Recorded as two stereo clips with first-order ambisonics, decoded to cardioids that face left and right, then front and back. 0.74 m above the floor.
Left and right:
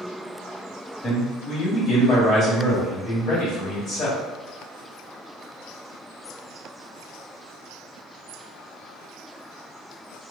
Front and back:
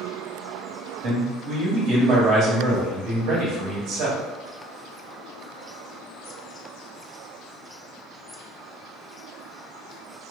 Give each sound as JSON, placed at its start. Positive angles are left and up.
{"t": 1.0, "sound": "a man speaking", "azimuth_deg": 145, "distance_m": 1.2}